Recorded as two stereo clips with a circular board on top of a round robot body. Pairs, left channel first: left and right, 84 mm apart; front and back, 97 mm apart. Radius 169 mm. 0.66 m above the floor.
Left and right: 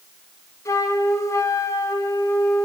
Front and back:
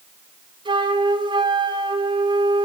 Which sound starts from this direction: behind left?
A flute, at 0.7 s.